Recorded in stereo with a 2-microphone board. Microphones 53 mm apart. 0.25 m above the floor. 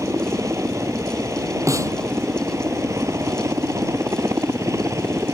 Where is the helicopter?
70° right (ahead or behind).